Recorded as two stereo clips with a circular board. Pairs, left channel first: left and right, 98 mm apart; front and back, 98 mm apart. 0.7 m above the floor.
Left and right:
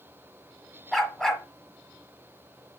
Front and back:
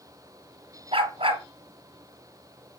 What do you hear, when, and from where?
0.9 s a dog barking: straight behind, 1.5 m